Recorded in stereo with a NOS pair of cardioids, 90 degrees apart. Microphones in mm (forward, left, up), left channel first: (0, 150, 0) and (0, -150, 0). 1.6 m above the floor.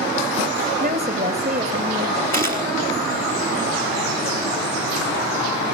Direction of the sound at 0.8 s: 30° right.